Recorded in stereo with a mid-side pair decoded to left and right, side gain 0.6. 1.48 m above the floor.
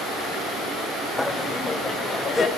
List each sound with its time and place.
1.2 s laughter: 10° left, 0.6 m; by 2.5 s 25° left, 1.2 m